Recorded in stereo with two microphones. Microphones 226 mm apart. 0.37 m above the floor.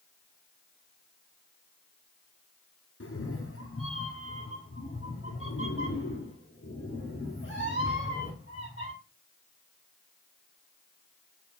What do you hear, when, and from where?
3.0 s a cat meowing: 80° left, 1.2 m; by 8.9 s 55° left (ahead or behind), 4 m